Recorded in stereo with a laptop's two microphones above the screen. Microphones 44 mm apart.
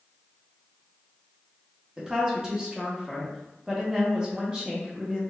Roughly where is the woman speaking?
Centre.